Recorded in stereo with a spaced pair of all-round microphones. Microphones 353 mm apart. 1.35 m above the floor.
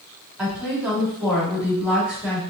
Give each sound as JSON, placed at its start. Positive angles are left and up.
{"t": 0.4, "sound": "a woman speaking", "side_deg": -5, "distance_m": 2.5}